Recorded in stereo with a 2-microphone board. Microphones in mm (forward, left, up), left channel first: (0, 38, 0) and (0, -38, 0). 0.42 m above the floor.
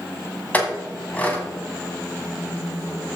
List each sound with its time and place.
0.5 s a clink: 20° left (ahead or behind), 2 m